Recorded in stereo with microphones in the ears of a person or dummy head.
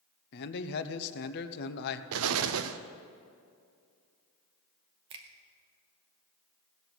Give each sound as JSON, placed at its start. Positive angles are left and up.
{"t": 0.3, "sound": "a man speaking", "side_deg": 55, "distance_m": 0.9}
{"t": 2.1, "sound": "an explosion", "side_deg": -80, "distance_m": 0.7}
{"t": 5.1, "sound": "a finger snap", "side_deg": -35, "distance_m": 1.0}